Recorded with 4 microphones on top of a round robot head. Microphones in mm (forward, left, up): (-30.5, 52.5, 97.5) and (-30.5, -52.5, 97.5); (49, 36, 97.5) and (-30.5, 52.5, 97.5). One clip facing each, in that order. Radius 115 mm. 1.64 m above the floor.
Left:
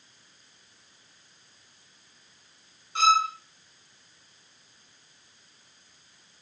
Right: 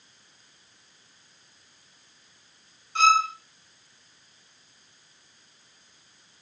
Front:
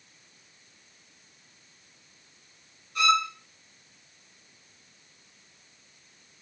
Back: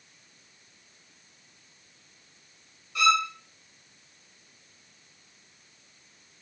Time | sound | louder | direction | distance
3.0 | a violin | right 1 dB, back 1 dB | 170° left | 1.4 m